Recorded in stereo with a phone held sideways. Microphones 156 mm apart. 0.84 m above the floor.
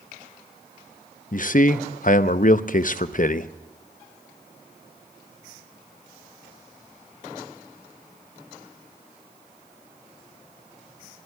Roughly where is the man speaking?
Left.